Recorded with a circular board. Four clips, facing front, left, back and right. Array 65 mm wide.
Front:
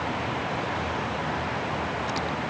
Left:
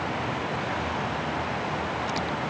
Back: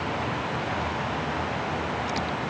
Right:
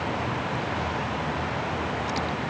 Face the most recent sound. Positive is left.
No sound to turn to.